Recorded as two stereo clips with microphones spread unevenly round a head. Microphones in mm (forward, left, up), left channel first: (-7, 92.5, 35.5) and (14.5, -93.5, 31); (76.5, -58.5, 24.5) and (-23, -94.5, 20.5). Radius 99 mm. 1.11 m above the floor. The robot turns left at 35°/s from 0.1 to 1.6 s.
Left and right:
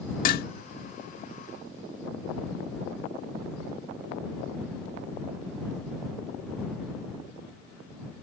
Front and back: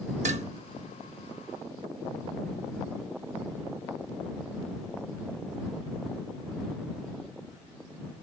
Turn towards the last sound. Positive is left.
turn(degrees=95)